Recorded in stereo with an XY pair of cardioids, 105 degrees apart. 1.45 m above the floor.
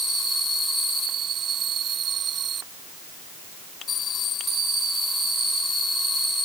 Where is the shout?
No shout in this recording.